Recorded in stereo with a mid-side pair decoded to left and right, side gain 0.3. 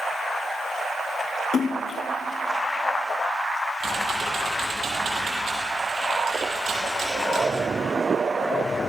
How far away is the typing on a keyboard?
About 9 m.